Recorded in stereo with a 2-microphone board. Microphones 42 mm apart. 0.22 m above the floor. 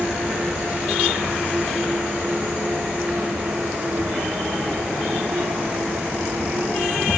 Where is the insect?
75° right (ahead or behind), 7.5 m.